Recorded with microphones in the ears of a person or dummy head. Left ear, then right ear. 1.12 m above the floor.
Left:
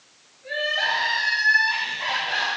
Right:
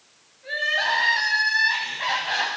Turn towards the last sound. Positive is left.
turn(degrees=-20)  # may be behind; listen again after turning